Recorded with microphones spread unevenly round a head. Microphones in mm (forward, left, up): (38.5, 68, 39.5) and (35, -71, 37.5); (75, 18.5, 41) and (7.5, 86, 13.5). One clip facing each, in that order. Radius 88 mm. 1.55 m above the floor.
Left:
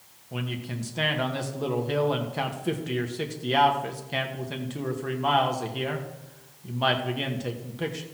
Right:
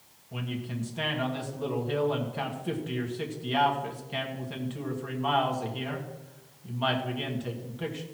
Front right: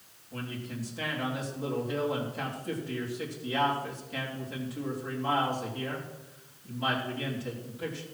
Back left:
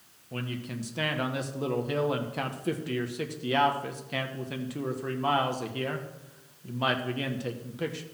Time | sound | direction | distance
0.3 | a man speaking | 145° left | 1.6 m